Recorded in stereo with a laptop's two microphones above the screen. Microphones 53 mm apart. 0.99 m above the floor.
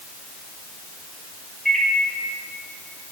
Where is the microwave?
5° left (ahead or behind), 5.5 m.